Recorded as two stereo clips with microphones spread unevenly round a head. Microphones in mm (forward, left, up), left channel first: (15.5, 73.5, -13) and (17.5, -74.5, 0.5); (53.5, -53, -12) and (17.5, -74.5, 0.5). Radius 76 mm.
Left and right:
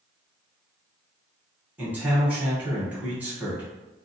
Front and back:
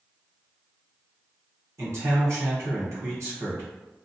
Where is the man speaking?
170° right, 1.1 m.